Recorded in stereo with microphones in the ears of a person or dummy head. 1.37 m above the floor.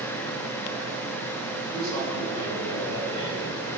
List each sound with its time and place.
1.7 s a man speaking: 35° left (ahead or behind), 5 m; by 3.7 s 40° left (ahead or behind), 6.5 m